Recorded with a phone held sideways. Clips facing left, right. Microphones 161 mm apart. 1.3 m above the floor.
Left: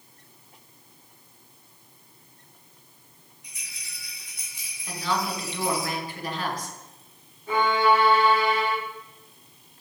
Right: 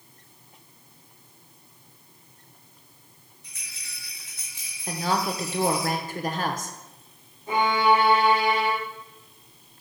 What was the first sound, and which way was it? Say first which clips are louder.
A rattle: even; 15° left (ahead or behind).